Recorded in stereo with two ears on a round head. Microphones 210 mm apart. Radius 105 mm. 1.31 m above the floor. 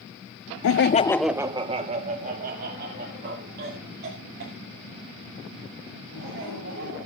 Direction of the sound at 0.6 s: 65° left (ahead or behind).